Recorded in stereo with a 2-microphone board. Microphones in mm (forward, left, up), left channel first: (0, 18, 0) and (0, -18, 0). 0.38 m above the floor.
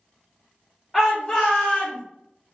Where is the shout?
Centre (ahead or behind), 1.0 m; by 2.0 s 35° left (ahead or behind), 1.2 m.